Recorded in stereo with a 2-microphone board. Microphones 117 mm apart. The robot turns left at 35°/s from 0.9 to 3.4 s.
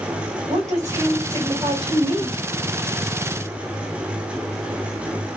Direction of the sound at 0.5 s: 100° right.